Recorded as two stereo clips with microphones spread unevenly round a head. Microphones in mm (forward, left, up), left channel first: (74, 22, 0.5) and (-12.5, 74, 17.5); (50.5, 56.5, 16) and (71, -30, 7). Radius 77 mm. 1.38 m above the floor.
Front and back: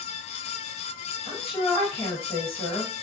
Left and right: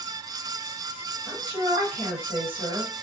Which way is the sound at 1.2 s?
120° right.